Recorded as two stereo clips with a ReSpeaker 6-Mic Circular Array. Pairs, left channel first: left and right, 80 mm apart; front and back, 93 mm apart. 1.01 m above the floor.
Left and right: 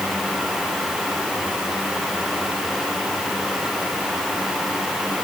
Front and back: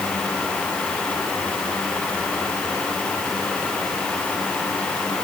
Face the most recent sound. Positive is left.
No sound to turn to.